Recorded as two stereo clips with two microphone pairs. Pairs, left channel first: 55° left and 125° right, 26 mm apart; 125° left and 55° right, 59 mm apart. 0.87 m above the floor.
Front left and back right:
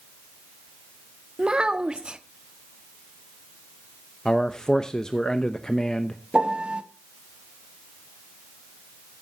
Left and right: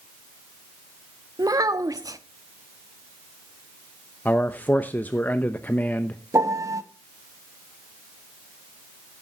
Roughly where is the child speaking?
Right.